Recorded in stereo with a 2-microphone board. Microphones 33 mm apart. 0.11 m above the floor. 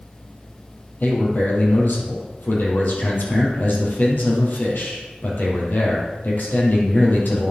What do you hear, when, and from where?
1.0 s a man speaking: 65° left (ahead or behind), 4 m